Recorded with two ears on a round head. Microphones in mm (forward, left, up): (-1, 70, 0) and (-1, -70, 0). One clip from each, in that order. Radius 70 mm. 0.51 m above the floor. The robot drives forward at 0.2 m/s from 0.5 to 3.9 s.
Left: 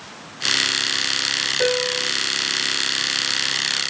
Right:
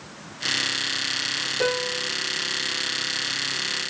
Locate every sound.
1.6 s a piano: 10° left (ahead or behind), 0.8 m